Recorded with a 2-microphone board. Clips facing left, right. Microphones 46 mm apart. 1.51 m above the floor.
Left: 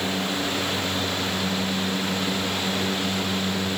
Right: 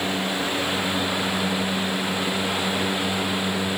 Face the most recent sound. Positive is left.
No sound to turn to.